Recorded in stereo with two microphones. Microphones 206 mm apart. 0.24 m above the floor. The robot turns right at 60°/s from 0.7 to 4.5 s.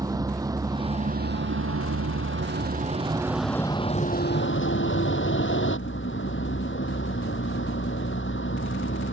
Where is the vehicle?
165° right; by 9.1 s 65° left.